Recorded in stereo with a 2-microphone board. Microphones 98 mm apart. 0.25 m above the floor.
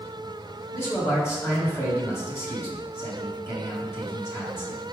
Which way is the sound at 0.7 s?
25° left (ahead or behind).